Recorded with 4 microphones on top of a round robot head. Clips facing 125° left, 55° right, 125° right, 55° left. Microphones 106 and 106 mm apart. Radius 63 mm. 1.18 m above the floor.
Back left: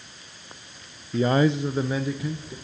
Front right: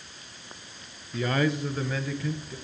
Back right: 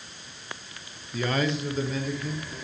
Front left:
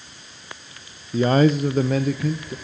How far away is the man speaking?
About 0.7 m.